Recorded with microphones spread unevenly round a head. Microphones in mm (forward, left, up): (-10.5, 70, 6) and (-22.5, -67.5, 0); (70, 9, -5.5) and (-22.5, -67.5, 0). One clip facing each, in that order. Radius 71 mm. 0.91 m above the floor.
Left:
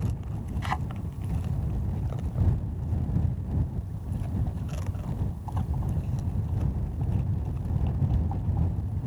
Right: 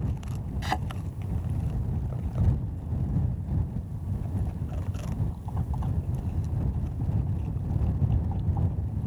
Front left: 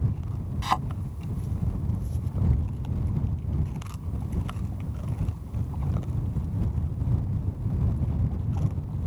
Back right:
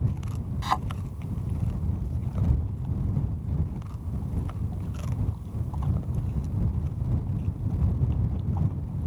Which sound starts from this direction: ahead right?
A thud, at 0.6 s.